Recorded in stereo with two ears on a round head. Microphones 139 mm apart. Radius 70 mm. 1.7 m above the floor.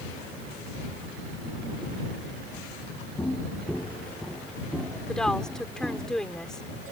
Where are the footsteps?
10° left (ahead or behind); by 6.1 s 10° right (ahead or behind).